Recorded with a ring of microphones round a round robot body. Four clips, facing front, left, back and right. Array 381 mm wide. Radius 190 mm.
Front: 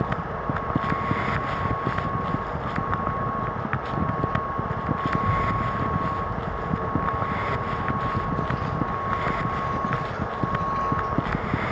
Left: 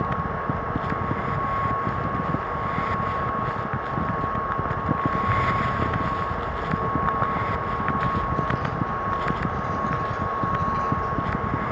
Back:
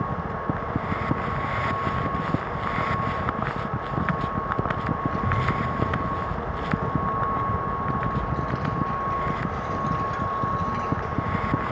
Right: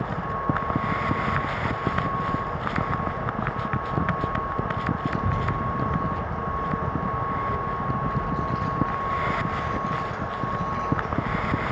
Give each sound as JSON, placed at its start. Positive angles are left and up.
{"t": 5.1, "sound": "a child speaking", "azimuth_deg": -130, "distance_m": 2.5}